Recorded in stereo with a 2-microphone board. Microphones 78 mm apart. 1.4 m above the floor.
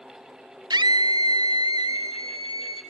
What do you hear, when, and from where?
0.7 s a scream: 70° right (ahead or behind), 0.8 m; by 2.8 s 75° right (ahead or behind), 2 m